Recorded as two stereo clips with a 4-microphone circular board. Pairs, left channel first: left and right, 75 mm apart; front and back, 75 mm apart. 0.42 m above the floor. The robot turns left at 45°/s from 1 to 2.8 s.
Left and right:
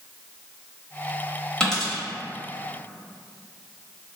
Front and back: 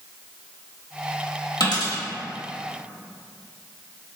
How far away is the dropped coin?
About 1.0 m.